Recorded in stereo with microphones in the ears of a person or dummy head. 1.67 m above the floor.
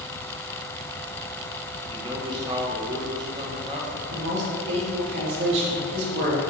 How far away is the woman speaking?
About 3 m.